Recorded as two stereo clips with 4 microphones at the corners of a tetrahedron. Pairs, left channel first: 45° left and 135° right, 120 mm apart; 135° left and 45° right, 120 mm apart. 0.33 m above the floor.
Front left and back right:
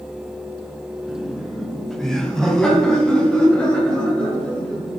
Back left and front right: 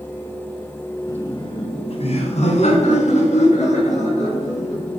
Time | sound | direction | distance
1.1 | laughter | 145° left | 1.3 m